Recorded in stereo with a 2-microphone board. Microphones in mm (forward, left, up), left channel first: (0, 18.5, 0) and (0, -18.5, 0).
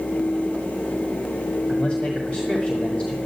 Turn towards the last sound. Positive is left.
turn(degrees=35)  # may be behind; listen again after turning